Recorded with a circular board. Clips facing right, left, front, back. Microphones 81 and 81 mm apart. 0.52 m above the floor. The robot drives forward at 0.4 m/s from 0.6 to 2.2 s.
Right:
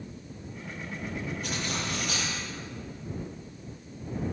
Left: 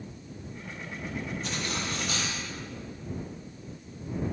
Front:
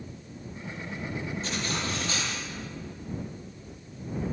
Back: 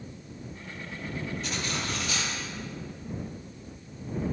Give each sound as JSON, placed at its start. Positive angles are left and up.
{"t": 1.4, "sound": "cutlery clinking", "azimuth_deg": -60, "distance_m": 9.0}